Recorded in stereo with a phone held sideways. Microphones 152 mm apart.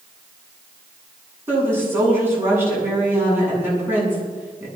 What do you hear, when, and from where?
1.5 s a woman speaking: 15° right (ahead or behind), 8.5 m